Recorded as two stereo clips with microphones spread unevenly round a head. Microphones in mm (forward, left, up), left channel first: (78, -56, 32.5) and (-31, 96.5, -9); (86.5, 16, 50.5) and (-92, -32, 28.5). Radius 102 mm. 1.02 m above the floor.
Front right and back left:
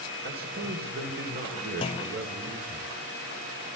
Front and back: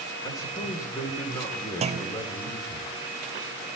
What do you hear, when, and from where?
0.2 s a man speaking: 90° left, 3.5 m
1.8 s a clunk: 125° right, 0.5 m